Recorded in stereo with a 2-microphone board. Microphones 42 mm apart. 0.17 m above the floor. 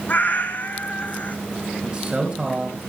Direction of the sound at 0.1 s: 45° left (ahead or behind).